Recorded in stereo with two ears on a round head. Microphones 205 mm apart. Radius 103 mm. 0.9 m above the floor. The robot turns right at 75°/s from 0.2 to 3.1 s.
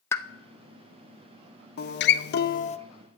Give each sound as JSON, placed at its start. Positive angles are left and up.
{"t": 0.1, "sound": "a pop", "side_deg": 10, "distance_m": 0.6}
{"t": 1.8, "sound": "a guitar", "azimuth_deg": 70, "distance_m": 0.7}